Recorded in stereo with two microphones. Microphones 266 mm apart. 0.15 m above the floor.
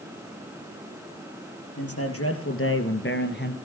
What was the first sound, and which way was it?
A man speaking, 60° left (ahead or behind).